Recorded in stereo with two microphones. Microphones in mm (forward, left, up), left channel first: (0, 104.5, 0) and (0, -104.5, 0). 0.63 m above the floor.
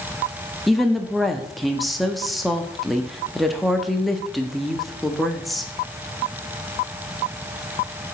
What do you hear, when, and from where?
0.7 s a woman speaking: centre (ahead or behind), 0.6 m